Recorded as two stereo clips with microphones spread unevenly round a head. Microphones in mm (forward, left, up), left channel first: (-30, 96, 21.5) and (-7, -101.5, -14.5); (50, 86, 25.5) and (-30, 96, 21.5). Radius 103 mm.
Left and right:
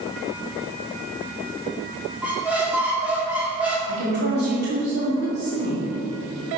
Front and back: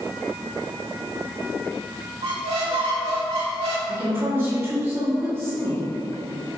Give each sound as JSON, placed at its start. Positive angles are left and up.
{"t": 2.2, "sound": "a squeak", "azimuth_deg": -170, "distance_m": 1.1}
{"t": 3.9, "sound": "a woman speaking", "azimuth_deg": -115, "distance_m": 1.6}